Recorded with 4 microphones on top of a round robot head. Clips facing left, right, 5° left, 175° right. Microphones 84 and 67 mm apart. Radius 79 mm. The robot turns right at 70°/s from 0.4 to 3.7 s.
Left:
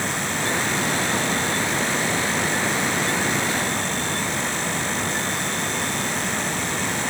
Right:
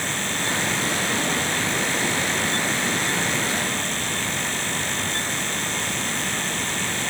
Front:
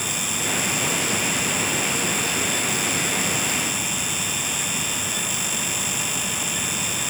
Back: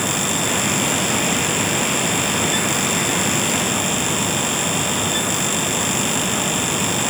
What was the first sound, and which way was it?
Only background noise.